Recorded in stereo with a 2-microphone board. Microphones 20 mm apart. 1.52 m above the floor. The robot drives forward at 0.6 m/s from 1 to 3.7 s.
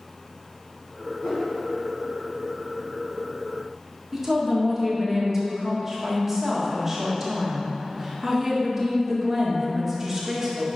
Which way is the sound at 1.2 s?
75° left (ahead or behind).